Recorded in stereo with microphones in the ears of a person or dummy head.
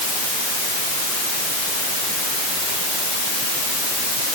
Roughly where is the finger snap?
No finger snap in this recording.